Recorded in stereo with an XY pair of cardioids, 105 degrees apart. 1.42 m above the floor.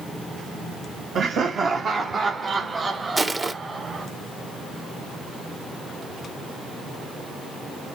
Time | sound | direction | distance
1.1 | laughter | 55° right | 1.4 m
3.2 | crushing | 15° right | 1.0 m